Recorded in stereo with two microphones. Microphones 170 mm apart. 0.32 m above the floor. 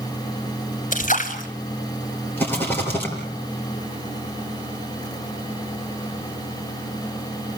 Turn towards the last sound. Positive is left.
turn(degrees=10)  # may be behind; listen again after turning